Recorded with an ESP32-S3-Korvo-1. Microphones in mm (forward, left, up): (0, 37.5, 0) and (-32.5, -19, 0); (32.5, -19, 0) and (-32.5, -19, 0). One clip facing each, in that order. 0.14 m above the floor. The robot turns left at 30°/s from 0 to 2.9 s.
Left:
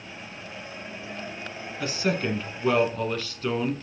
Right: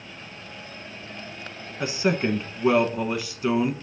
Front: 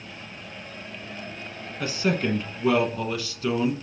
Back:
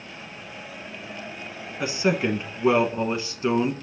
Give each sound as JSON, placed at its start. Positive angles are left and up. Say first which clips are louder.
{"t": 1.8, "sound": "a man speaking", "louder": "right 3 dB, back 2 dB", "azimuth_deg": -135, "distance_m": 1.1}